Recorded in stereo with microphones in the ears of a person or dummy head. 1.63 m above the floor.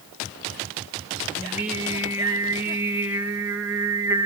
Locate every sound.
1.4 s singing: 10° right (ahead or behind), 1.5 m